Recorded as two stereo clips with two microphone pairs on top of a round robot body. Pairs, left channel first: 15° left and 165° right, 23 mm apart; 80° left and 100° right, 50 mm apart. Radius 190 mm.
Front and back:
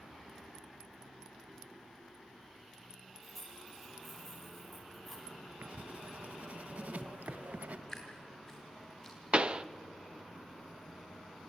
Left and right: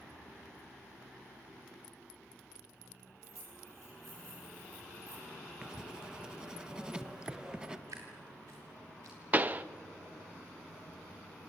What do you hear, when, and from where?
3.2 s keys jangling: 75° right, 6.5 m
5.6 s writing: 175° right, 0.8 m
7.9 s dripping: 80° right, 0.7 m
9.3 s a pop: 145° right, 0.9 m